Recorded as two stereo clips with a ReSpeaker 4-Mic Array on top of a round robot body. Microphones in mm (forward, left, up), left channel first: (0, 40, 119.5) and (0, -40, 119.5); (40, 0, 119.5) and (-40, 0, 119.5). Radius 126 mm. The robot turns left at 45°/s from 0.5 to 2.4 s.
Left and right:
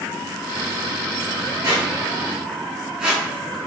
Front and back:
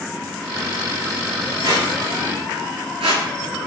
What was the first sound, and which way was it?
A squeak, 135° right.